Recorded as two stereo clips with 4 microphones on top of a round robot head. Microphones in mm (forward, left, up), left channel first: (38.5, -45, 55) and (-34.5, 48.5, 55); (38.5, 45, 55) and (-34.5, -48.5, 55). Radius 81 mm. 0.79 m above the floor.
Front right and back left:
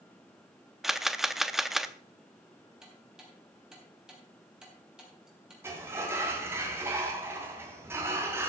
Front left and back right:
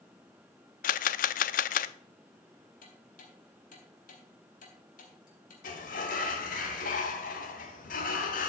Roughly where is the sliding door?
Ahead left.